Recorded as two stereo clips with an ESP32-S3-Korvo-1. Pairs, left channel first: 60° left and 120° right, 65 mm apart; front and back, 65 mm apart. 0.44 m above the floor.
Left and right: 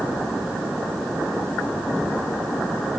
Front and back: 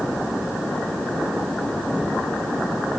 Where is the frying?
I don't hear frying.